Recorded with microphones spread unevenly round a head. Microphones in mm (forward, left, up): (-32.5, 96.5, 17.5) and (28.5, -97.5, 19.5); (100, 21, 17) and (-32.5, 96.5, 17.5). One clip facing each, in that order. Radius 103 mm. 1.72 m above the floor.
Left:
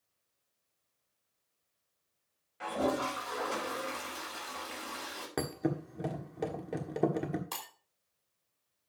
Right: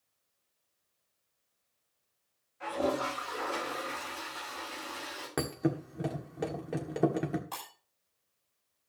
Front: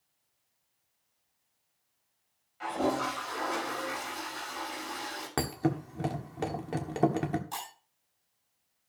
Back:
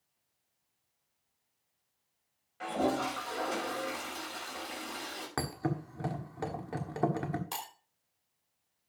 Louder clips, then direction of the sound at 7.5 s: Right 1 dB, front 1 dB; 140° left.